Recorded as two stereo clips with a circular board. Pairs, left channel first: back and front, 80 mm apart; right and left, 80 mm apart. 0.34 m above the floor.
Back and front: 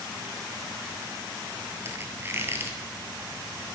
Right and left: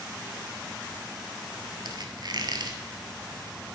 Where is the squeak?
60° left, 1.0 m.